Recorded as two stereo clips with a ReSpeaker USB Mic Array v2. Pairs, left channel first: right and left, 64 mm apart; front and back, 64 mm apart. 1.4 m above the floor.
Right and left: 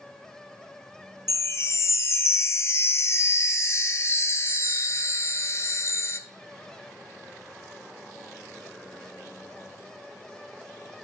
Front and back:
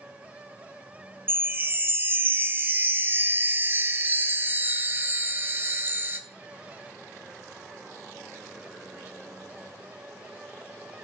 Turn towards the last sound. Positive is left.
turn(degrees=-130)